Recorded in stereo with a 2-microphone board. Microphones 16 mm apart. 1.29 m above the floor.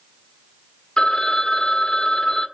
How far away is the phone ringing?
About 1.9 m.